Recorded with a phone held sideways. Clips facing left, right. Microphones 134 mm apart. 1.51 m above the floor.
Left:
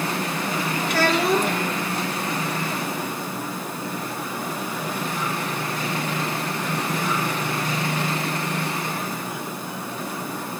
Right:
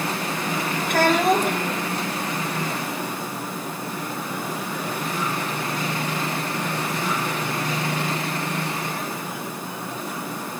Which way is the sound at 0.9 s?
50° right (ahead or behind).